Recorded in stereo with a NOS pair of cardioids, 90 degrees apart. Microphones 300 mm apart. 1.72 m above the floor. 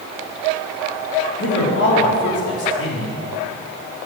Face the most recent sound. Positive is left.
turn(degrees=50)